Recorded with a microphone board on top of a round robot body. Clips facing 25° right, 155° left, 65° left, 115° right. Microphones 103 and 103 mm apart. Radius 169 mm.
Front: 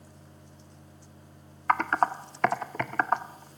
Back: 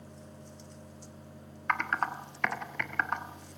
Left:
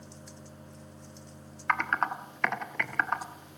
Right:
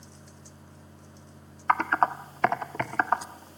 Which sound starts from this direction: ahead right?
Typing on a keyboard, at 1.7 s.